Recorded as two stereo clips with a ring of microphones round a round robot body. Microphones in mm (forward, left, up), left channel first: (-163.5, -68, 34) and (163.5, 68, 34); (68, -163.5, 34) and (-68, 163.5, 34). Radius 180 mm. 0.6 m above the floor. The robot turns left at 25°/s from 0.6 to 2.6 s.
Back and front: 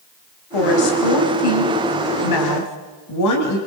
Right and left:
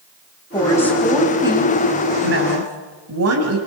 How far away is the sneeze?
I don't hear a sneeze.